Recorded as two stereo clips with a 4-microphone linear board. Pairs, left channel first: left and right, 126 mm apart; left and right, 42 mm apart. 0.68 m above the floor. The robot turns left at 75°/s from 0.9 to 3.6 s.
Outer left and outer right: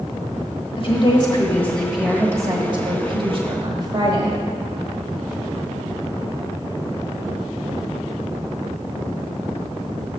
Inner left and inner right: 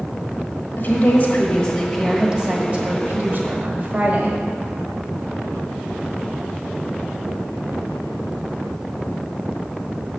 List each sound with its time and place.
0.8 s a woman speaking: 75° left, 1.3 m; by 4.4 s 125° right, 1.3 m